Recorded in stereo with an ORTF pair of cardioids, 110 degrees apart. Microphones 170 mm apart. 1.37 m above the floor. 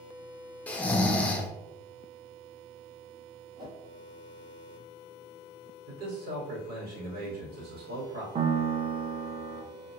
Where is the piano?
40° right, 0.5 m.